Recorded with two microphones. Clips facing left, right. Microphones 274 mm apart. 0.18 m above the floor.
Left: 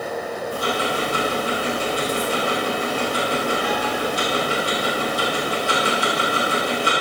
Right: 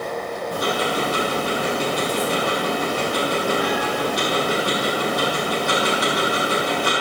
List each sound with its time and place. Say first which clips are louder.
0.5 s ticking: right 2 dB; 75° right (ahead or behind), 7 m